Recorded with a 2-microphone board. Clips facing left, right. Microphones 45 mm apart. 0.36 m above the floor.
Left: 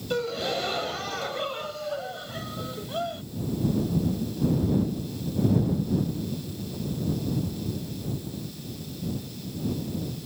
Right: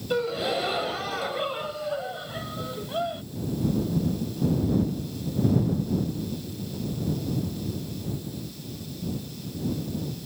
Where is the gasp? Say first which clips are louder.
Right 2 dB; 10° right (ahead or behind).